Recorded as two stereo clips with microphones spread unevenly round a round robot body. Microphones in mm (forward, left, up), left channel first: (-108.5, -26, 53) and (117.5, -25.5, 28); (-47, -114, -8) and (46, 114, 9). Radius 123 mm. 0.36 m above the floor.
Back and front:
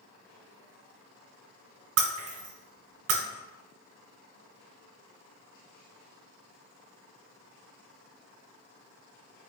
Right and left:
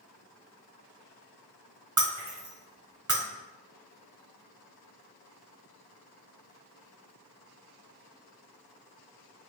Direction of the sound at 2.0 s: 10° right.